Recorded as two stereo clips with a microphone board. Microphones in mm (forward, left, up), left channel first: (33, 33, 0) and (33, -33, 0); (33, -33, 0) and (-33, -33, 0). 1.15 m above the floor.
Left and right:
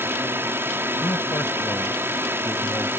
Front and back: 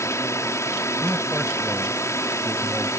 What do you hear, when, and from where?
0.0 s a drone: 40° right
1.0 s a man speaking: 100° left